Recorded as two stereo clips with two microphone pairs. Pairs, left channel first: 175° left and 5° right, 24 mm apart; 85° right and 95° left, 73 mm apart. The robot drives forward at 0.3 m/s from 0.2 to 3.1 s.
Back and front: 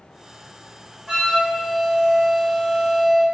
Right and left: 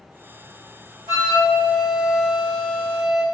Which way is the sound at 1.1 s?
85° left.